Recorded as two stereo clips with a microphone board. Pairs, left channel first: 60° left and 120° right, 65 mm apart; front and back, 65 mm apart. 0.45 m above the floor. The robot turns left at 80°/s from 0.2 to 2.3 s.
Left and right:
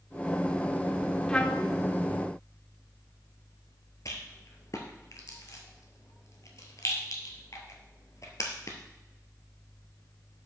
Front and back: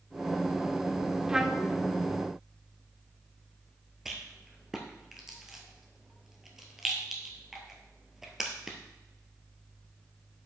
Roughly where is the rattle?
Left.